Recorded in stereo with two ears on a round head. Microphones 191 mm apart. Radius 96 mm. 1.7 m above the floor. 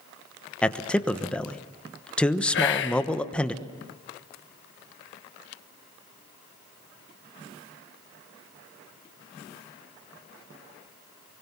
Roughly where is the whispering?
Left.